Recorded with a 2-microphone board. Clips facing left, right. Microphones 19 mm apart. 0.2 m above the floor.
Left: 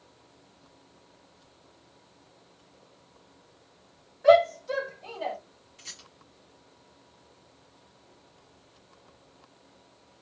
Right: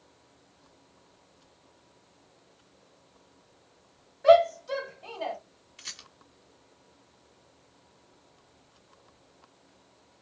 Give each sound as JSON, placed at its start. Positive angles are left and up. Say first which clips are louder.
{"t": 4.2, "sound": "a shout", "louder": "even", "side_deg": -10, "distance_m": 2.0}
{"t": 5.8, "sound": "a rattle", "louder": "right 3 dB", "side_deg": -30, "distance_m": 1.2}